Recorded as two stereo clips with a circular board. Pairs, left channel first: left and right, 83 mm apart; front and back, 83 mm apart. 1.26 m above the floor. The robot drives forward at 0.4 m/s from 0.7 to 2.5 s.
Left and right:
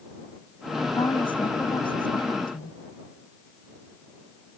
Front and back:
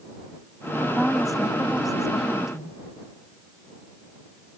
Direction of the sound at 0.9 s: 90° left.